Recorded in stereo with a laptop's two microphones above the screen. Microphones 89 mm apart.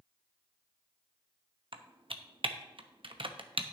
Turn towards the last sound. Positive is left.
turn(degrees=-70)  # may be behind; listen again after turning